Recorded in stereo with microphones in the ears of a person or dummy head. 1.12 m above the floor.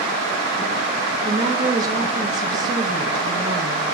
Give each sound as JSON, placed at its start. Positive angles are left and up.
{"t": 1.2, "sound": "a woman speaking", "side_deg": -20, "distance_m": 1.3}